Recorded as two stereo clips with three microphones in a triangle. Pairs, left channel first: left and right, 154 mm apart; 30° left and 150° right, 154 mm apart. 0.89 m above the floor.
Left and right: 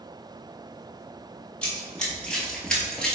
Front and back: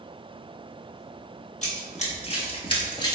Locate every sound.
1.6 s running footsteps: 10° left, 1.5 m